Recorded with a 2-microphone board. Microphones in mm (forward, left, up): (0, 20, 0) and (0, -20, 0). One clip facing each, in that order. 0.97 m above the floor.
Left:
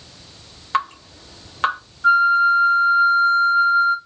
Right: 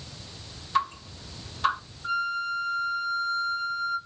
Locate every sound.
0.7 s dripping: 70° left (ahead or behind), 2 m
2.0 s a flute: 75° left (ahead or behind), 2.5 m